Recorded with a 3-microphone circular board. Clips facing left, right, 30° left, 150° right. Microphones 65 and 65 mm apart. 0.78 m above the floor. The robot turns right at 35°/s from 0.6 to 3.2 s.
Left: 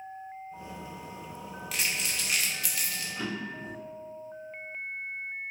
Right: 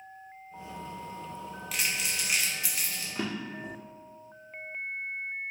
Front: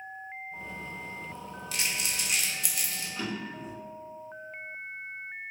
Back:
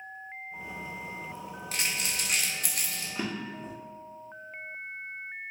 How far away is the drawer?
About 0.8 m.